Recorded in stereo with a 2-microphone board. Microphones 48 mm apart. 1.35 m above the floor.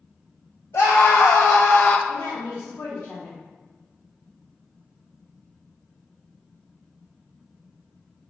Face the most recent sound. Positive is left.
turn(degrees=75)  # may be behind; listen again after turning